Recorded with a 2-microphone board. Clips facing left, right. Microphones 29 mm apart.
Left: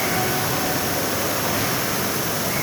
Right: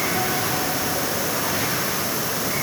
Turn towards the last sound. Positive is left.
No sound to turn to.